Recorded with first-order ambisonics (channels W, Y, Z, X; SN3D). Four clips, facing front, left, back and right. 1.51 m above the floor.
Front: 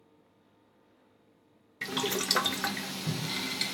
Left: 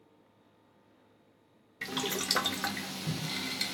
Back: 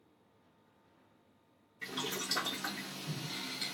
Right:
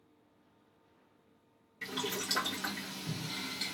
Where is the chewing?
I don't hear chewing.